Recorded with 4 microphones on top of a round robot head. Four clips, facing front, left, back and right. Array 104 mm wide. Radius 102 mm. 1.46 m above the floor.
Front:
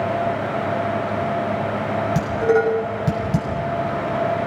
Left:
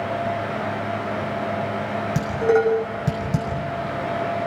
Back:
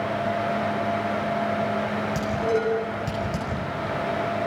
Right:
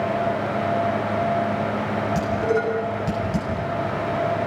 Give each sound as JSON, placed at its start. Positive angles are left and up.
{"t": 2.1, "sound": "dishes clattering", "azimuth_deg": 50, "distance_m": 5.5}